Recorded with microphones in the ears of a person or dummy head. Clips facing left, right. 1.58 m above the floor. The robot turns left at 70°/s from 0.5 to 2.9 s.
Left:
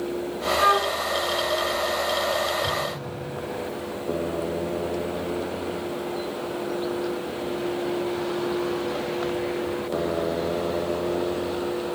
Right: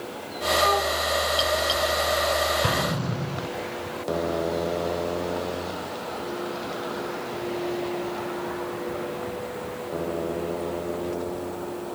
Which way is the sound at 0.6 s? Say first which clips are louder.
Right 1 dB; 55° left (ahead or behind).